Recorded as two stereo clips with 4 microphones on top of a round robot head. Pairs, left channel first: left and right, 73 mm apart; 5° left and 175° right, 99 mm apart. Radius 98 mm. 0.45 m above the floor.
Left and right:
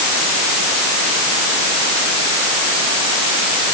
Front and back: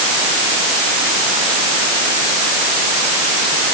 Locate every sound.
Only background noise.